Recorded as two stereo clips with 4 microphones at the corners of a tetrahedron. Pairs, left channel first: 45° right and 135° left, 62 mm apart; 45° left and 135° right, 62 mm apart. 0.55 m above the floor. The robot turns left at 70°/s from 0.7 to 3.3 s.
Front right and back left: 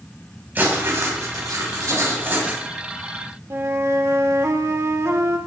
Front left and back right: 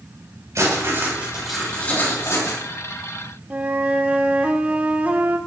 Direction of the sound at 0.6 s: 165° right.